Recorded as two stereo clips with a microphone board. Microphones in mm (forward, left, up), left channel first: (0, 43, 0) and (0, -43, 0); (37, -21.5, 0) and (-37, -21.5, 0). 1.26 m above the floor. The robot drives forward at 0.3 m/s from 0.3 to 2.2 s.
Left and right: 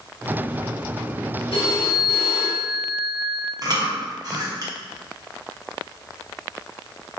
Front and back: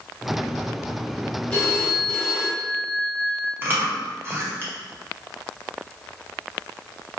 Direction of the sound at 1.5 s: 75° left.